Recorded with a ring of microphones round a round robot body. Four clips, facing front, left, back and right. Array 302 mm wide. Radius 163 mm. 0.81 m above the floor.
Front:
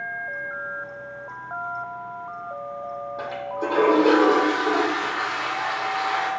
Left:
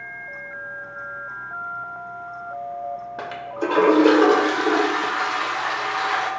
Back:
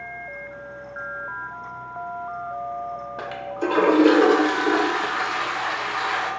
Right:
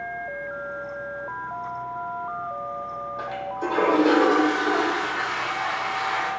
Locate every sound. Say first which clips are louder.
3.2 s a toilet flushing: left 1 dB, back 1 dB; 115° left, 0.6 m